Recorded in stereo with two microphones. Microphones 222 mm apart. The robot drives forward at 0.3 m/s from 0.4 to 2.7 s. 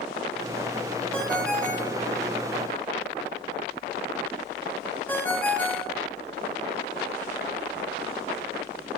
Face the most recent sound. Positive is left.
turn(degrees=10)  # may be behind; listen again after turning